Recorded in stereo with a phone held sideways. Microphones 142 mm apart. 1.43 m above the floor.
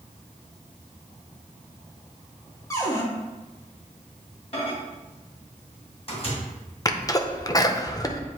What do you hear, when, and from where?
2.7 s a cupboard door: 20° left (ahead or behind), 1.6 m
4.5 s a microwave: 45° left (ahead or behind), 1.7 m
6.8 s a sneeze: 25° left (ahead or behind), 0.7 m